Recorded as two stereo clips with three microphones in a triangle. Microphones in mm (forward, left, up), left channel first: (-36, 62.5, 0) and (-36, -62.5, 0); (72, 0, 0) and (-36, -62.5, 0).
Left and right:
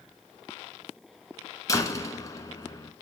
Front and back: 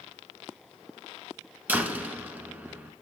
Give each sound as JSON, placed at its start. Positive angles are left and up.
{"t": 1.7, "sound": "a door slam", "azimuth_deg": 140, "distance_m": 1.5}